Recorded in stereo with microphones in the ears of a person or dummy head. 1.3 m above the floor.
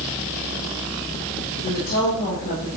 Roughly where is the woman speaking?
Left.